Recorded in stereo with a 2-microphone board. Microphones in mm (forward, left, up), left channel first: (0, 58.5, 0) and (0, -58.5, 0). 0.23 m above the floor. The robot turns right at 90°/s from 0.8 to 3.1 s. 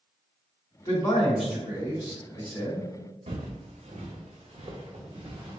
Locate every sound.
0.8 s a man speaking: 125° left, 1.7 m; by 2.9 s 50° right, 1.7 m
3.3 s footsteps: 70° right (ahead or behind), 0.7 m; by 5.6 s 55° right (ahead or behind), 1.8 m